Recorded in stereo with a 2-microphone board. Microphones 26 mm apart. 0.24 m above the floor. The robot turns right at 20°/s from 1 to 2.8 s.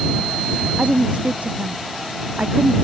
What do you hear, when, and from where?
0.8 s a woman speaking: 50° right (ahead or behind); by 2.7 s 85° right